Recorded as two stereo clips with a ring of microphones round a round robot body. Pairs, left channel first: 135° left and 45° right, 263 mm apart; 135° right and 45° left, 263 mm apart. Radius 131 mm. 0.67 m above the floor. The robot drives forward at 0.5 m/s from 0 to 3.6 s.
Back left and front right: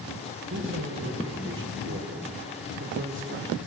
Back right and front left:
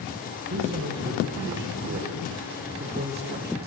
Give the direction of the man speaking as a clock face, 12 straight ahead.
12 o'clock.